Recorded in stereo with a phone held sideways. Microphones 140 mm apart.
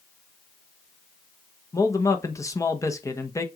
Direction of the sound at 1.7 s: 25° left (ahead or behind).